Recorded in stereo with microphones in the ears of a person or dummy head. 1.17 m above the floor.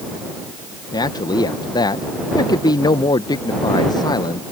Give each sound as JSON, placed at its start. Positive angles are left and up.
{"t": 0.9, "sound": "a man speaking", "side_deg": 20}